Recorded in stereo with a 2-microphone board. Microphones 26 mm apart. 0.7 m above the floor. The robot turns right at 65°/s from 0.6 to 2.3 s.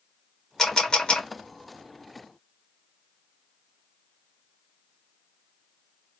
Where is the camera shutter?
15° left (ahead or behind), 1.5 m; by 1.3 s 55° left (ahead or behind), 1.5 m.